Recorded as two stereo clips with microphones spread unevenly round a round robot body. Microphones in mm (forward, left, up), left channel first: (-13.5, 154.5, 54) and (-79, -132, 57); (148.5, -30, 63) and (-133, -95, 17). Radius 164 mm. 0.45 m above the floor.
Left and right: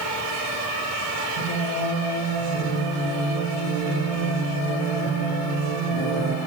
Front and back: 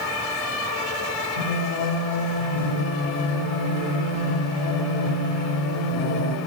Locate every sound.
1.4 s singing: 20° left, 7 m